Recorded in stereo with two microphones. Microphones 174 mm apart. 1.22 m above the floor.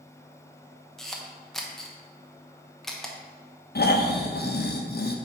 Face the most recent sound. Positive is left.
turn(degrees=65)  # may be behind; listen again after turning